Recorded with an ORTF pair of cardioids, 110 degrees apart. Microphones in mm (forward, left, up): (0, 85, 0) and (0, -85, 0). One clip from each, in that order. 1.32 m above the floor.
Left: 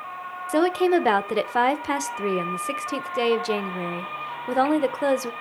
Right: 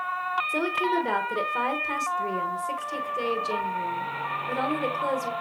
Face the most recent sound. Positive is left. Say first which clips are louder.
# left 9 dB
turn(degrees=50)